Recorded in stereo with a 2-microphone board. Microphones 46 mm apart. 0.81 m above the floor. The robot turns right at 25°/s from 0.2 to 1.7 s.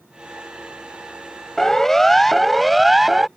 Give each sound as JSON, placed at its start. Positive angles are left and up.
{"t": 1.6, "sound": "a siren", "side_deg": 10}